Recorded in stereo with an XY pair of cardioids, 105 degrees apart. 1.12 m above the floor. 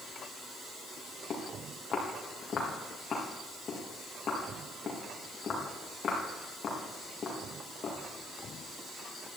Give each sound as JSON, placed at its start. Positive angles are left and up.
{"t": 1.3, "sound": "footsteps", "azimuth_deg": 45, "distance_m": 4.0}